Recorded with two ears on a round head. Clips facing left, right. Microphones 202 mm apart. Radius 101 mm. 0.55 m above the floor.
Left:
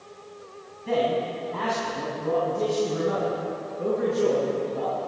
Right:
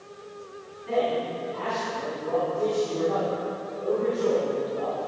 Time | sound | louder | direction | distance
0.9 | a man speaking | left 1 dB | 60° left (ahead or behind) | 4 m